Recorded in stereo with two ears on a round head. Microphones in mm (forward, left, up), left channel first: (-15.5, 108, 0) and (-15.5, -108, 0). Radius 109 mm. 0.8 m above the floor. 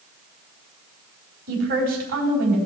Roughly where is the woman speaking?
Right.